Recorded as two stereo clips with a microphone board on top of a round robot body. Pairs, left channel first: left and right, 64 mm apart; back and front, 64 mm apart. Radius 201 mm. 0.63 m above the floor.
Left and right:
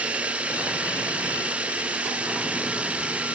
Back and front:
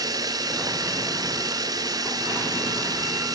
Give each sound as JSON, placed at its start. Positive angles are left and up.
{"t": 0.0, "sound": "running water", "azimuth_deg": -20}